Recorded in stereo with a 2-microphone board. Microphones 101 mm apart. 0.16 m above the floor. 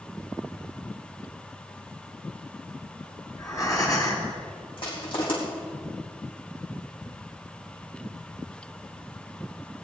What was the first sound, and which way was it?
Breathing, 35° left (ahead or behind).